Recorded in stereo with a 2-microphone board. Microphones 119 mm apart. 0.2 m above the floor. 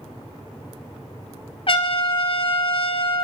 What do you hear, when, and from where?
1.7 s a trumpet: 50° left (ahead or behind), 0.9 m